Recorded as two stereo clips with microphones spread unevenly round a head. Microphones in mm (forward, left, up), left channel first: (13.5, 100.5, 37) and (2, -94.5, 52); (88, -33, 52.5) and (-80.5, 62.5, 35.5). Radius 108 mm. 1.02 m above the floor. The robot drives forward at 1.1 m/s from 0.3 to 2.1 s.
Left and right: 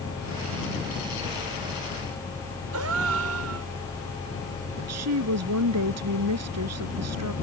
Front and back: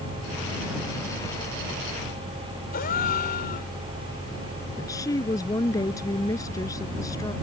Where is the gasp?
80° right.